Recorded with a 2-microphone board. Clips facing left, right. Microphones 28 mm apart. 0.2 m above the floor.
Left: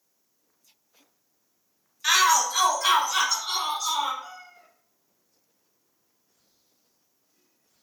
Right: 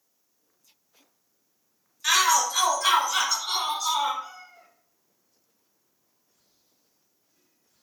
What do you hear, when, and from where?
2.0 s a shout: 15° left (ahead or behind), 1.0 m; by 4.1 s centre (ahead or behind), 2 m
4.2 s a cat meowing: 10° right (ahead or behind), 1.6 m